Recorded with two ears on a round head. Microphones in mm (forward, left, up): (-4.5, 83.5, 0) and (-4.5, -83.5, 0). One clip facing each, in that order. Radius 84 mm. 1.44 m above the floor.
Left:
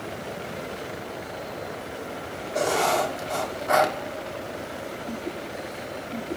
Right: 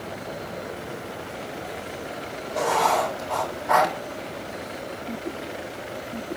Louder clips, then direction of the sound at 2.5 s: Right 1 dB; 50° left (ahead or behind).